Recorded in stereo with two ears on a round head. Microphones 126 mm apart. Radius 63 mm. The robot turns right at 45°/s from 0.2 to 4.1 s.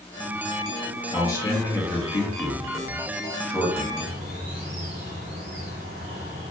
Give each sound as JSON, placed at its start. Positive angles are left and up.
{"t": 1.1, "sound": "a man speaking", "side_deg": 20, "distance_m": 0.8}
{"t": 4.0, "sound": "a bird", "side_deg": -70, "distance_m": 1.1}